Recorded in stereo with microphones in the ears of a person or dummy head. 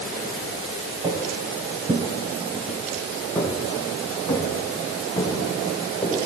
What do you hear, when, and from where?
1.0 s footsteps: 20° right (ahead or behind), 1.9 m; by 6.2 s 15° left (ahead or behind), 6.5 m